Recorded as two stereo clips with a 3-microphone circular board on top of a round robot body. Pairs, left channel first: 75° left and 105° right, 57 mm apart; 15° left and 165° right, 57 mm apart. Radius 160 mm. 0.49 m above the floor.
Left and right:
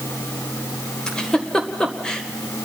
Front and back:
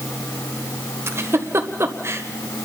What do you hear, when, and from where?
1.1 s a giggle: 155° left, 1.9 m